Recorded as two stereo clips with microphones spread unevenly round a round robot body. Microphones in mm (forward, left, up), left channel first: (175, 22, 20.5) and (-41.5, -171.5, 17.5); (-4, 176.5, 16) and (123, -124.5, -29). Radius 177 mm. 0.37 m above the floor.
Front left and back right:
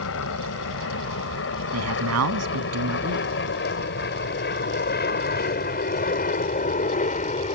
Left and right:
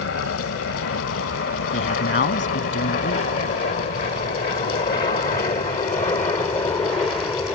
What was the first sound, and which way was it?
An aircraft, 75° left.